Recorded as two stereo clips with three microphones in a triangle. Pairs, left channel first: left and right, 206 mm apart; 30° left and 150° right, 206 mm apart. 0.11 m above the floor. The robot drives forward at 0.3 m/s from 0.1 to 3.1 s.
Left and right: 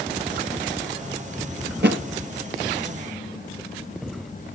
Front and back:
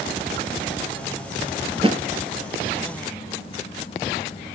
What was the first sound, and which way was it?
A thud, 85° right.